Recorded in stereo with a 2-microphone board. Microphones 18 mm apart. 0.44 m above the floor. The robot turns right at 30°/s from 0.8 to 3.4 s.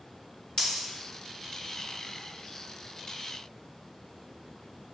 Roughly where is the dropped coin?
Left.